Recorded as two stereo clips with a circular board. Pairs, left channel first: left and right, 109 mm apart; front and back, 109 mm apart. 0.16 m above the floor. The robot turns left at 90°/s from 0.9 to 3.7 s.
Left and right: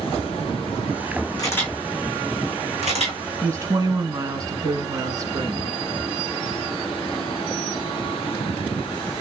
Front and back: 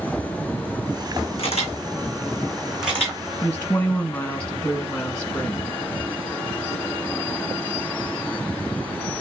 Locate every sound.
1.4 s a camera shutter: 35° left, 2 m; by 3.2 s 125° right, 2 m
3.4 s a woman speaking: 45° right, 1.3 m; by 5.7 s 70° right, 1.3 m